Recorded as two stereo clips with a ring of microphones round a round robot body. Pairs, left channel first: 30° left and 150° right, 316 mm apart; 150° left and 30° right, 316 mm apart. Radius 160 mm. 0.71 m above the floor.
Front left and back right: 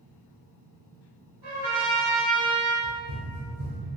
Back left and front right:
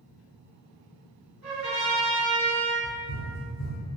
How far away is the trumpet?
About 1.7 m.